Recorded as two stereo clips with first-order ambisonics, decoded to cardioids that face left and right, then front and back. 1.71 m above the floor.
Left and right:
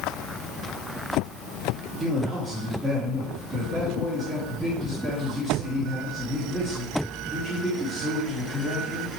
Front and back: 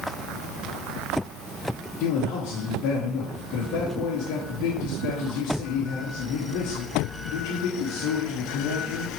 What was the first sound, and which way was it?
A man speaking, 15° right.